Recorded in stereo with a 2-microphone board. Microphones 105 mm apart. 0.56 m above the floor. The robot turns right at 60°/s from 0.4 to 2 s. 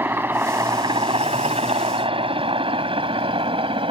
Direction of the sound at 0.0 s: 20° right (ahead or behind).